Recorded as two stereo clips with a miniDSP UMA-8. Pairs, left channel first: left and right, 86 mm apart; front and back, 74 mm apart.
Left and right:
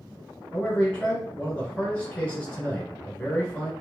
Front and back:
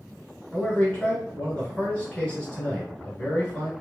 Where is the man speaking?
45° left, 1.1 m.